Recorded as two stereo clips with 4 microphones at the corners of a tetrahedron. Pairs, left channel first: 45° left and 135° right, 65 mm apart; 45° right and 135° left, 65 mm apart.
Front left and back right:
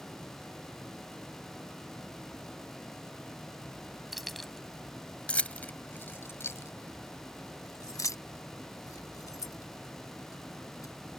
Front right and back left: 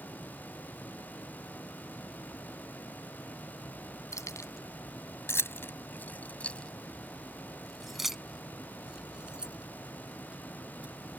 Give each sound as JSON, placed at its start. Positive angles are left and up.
{"t": 4.1, "sound": "keys jangling", "azimuth_deg": -45}